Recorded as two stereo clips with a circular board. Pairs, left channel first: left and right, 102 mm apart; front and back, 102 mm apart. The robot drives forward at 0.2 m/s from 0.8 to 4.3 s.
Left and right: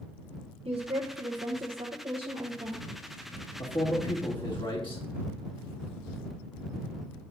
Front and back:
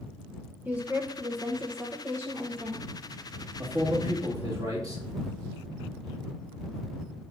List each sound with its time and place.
0.7 s a woman speaking: 110° right, 1.0 m; by 2.9 s 130° right, 1.2 m
3.6 s a man speaking: 120° left, 2 m; by 5.0 s 125° left, 2 m